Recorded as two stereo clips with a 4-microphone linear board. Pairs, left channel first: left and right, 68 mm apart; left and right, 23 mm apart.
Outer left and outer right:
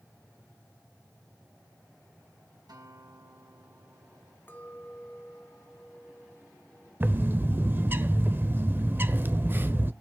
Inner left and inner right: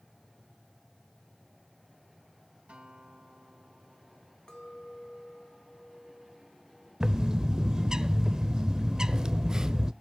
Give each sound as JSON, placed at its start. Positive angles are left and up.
{"t": 2.7, "sound": "a guitar", "side_deg": -75, "distance_m": 3.0}
{"t": 4.5, "sound": "a clink", "side_deg": 30, "distance_m": 1.7}
{"t": 7.0, "sound": "a bird", "side_deg": -30, "distance_m": 0.6}